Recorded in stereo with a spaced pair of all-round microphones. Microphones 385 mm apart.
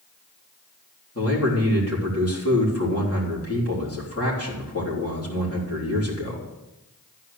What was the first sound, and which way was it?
A man speaking, 35° left (ahead or behind).